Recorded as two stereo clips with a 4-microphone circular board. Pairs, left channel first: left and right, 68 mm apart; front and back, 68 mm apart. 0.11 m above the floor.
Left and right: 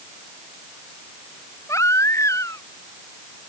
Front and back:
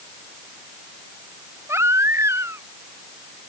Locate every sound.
1.7 s a baby crying: 130° left